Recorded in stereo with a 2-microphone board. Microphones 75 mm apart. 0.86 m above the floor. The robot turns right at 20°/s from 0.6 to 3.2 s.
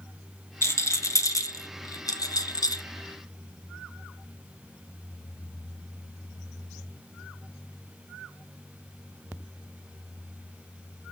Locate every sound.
0.6 s a rattle: 35° left (ahead or behind), 1.0 m; by 2.8 s 60° left (ahead or behind), 1.0 m